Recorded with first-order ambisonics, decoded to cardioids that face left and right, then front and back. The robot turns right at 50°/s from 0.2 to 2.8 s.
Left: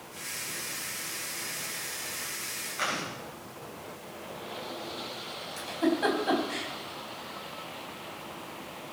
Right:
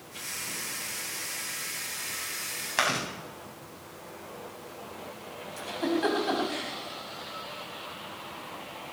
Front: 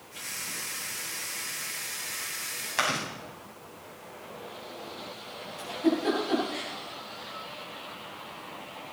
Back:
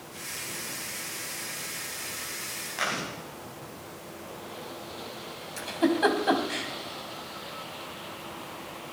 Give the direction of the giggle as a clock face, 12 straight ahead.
6 o'clock.